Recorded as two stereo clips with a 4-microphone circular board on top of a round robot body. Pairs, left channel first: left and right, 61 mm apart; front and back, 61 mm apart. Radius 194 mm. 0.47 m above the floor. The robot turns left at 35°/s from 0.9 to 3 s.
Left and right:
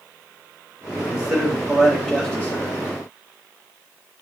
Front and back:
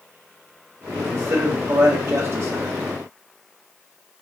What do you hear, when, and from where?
0.9 s a man speaking: 155° right, 1.9 m; by 2.8 s 145° left, 1.9 m